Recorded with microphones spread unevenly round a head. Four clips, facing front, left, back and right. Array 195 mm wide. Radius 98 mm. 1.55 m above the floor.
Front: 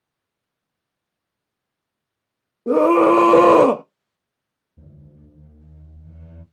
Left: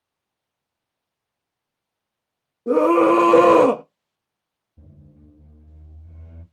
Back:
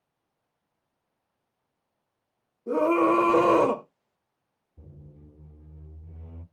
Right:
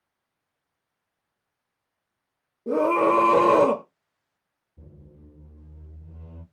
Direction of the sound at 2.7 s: 5° left.